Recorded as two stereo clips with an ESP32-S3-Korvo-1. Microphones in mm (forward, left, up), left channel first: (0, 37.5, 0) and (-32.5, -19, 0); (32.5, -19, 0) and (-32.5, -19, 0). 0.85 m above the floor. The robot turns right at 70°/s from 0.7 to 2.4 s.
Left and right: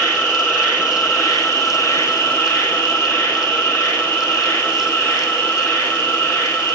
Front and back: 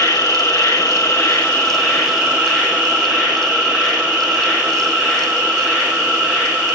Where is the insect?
5° left, 3.5 m; by 6.8 s 125° left, 3.5 m.